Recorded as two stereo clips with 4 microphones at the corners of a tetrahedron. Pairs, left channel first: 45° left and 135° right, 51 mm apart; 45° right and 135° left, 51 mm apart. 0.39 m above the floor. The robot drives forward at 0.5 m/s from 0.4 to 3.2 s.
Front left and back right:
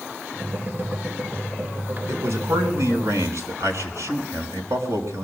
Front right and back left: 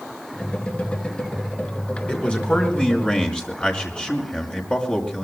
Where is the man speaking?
110° right, 5 m; by 5.2 s 115° right, 5 m.